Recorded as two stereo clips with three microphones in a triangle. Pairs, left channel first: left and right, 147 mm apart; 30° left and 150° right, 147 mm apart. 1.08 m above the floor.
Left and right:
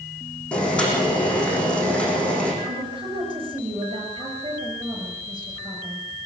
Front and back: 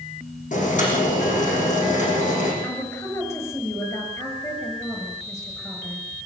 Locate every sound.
0.5 s boiling: 10° left, 8 m
2.6 s a woman speaking: 35° right, 6.5 m